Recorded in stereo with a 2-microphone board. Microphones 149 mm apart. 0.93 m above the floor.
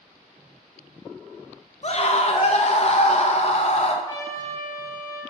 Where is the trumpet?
25° left (ahead or behind), 5 m.